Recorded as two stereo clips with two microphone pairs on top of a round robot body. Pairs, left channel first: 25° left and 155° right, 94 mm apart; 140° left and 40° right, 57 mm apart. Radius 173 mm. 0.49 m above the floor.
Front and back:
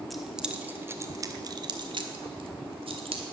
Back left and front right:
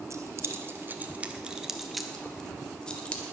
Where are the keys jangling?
65° right, 1.5 m; by 3.2 s 150° right, 2.5 m.